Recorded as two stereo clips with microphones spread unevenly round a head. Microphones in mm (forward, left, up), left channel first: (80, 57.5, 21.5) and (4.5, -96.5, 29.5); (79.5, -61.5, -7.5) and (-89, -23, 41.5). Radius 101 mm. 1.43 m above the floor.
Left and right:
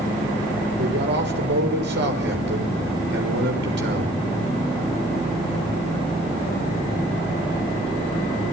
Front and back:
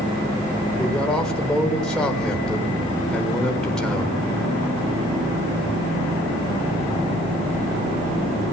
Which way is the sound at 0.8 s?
100° right.